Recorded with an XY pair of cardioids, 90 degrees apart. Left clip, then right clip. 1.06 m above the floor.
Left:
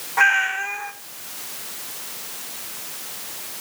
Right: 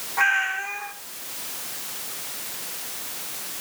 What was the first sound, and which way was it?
A cat meowing, 50° left.